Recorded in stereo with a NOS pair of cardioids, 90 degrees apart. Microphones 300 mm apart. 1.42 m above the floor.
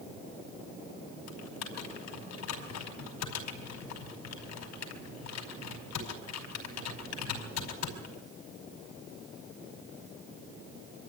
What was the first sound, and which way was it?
Typing on a keyboard, 70° left.